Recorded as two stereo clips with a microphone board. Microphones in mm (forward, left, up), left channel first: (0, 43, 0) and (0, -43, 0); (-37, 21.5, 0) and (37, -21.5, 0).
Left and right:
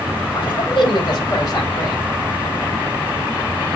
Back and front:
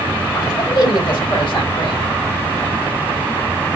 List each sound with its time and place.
0.3 s a man speaking: 115° left, 3.5 m; by 2.0 s 140° left, 3 m